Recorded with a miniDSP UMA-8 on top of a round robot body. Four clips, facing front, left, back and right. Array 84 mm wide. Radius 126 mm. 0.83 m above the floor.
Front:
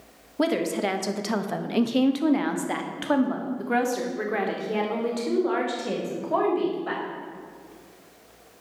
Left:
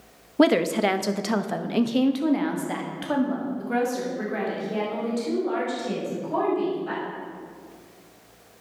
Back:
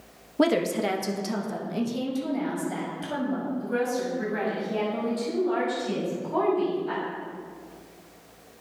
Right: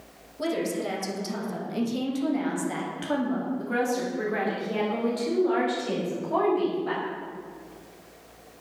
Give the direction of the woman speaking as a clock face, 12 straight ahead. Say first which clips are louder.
Left 9 dB, back 1 dB; 9 o'clock.